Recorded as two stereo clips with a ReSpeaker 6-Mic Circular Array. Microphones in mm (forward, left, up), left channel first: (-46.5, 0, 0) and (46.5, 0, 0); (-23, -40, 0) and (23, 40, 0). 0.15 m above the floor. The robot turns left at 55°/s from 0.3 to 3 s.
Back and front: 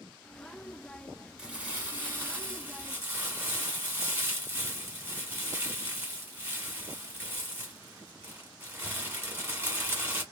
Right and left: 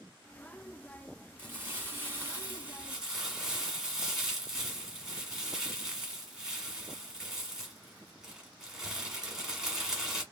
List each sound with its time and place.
1.4 s crumpling: 70° left, 1.4 m; by 10.2 s 20° right, 1.4 m